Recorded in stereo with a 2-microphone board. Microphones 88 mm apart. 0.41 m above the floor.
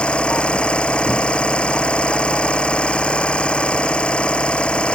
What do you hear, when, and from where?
0.0 s an engine running: 15° left (ahead or behind)